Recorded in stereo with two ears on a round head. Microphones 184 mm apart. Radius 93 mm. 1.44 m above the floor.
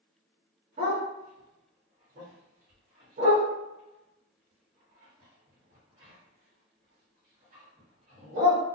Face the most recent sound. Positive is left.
turn(degrees=-40)  # may be behind; listen again after turning